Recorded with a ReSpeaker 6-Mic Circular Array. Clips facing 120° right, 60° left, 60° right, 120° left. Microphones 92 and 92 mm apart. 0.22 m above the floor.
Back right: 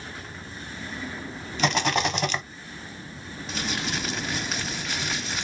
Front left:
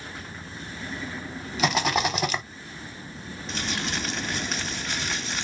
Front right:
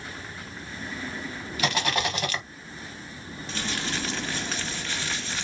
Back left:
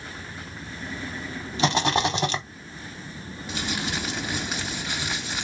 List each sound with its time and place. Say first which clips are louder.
1.6 s a rattle: even, back left 4 dB; 145° left, 0.5 m
3.5 s crumpling: even, back left 2 dB; 160° left, 0.5 m